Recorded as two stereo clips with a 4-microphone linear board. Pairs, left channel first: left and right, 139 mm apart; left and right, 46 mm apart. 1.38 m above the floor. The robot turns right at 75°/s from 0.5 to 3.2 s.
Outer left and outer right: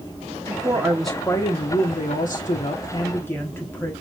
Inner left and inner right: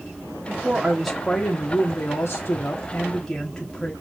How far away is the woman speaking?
About 1.0 m.